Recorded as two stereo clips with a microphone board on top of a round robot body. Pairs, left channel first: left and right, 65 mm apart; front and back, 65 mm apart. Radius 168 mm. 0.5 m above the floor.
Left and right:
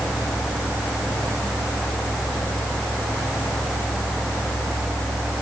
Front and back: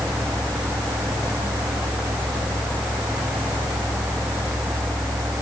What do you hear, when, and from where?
Only background noise.